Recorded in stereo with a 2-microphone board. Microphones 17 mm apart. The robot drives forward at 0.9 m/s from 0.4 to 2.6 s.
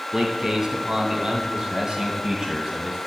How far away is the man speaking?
About 2.0 m.